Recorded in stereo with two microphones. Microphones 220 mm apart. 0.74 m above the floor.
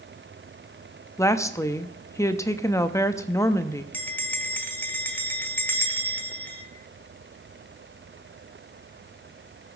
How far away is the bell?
About 1.1 m.